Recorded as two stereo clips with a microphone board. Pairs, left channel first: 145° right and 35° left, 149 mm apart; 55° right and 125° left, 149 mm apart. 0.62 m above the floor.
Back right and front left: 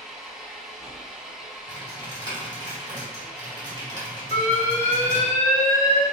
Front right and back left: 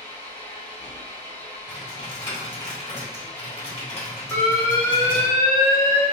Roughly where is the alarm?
Behind right.